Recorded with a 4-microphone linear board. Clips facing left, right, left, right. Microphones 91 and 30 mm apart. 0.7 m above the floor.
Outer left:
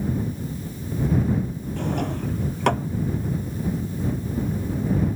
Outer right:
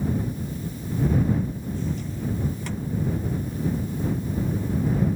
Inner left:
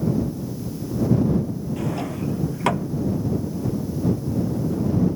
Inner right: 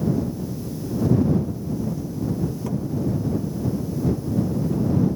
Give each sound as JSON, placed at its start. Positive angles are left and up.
{"t": 1.8, "sound": "a drawer", "side_deg": 60}